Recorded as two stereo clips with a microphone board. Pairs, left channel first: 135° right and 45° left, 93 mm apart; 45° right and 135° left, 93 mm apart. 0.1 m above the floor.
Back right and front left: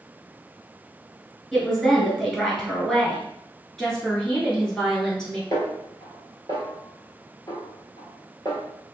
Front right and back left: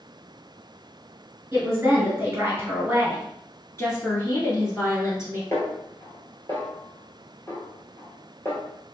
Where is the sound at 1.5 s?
135° left, 1.2 m.